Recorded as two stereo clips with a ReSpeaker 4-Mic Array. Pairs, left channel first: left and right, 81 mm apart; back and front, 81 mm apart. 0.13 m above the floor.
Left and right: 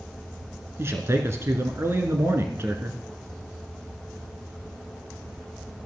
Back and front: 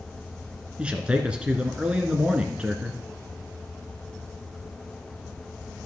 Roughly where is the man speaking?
Ahead right.